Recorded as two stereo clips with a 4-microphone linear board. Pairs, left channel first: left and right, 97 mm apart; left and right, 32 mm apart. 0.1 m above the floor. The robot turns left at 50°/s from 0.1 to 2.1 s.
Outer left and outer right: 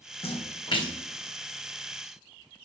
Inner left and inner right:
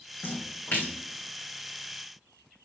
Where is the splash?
75° left (ahead or behind), 1.7 m; by 0.9 s 45° left (ahead or behind), 1.7 m.